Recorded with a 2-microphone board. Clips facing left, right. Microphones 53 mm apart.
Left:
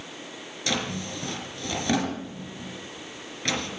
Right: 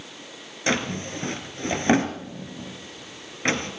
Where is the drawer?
35° right (ahead or behind), 2.5 m.